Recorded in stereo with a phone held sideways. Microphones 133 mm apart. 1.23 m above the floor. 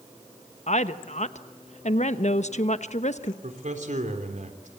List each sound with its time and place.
0.7 s a woman speaking: 60° left (ahead or behind), 1.0 m
3.4 s a man speaking: 65° right (ahead or behind), 3.5 m